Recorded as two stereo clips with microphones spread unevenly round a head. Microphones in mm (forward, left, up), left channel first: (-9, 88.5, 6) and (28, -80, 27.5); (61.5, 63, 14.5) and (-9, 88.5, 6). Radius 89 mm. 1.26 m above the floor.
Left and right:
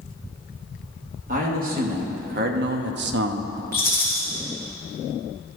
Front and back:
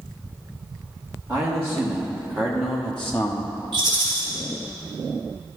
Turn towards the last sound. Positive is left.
turn(degrees=180)